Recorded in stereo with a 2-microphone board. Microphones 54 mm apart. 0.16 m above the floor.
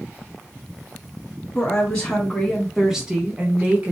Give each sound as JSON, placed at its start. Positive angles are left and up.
{"t": 1.6, "sound": "a woman speaking", "side_deg": 25, "distance_m": 1.3}